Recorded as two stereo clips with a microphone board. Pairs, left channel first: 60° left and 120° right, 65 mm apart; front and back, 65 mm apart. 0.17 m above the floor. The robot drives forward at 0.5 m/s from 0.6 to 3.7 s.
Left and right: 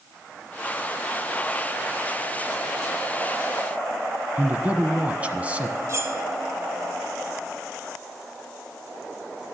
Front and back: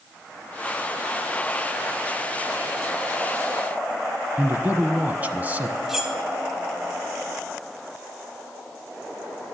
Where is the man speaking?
160° right, 1.1 m.